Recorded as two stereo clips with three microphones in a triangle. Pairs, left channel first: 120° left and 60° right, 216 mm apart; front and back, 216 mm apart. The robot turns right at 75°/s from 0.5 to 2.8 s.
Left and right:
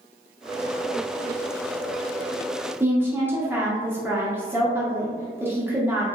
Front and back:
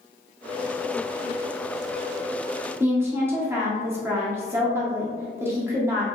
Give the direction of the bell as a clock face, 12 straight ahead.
I don't hear a bell.